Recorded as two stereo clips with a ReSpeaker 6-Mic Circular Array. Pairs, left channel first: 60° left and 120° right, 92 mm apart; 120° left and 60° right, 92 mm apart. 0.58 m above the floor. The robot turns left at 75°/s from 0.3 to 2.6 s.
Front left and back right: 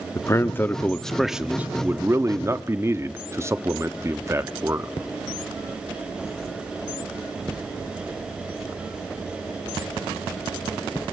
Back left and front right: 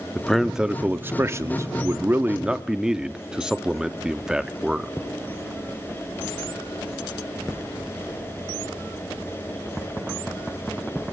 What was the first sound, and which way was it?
A man speaking, 35° left.